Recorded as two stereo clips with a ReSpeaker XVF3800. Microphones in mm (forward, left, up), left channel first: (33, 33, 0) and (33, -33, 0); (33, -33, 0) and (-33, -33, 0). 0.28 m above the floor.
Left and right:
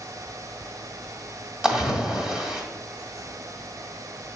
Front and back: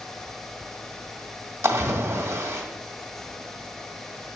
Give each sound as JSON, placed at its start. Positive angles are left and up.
{"t": 1.6, "sound": "a splash", "azimuth_deg": -160, "distance_m": 1.6}